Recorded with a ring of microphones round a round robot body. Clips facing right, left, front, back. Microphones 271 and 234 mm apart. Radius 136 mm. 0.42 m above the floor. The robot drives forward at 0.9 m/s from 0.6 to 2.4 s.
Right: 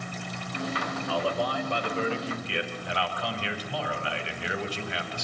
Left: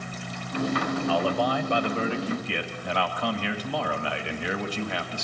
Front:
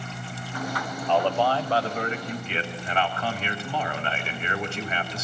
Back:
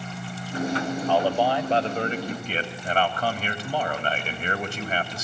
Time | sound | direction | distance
1.1 | a man speaking | 90° left | 1.7 m